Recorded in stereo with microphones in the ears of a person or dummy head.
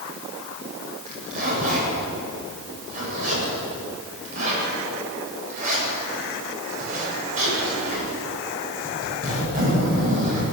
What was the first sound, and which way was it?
A zipper, 45° right (ahead or behind).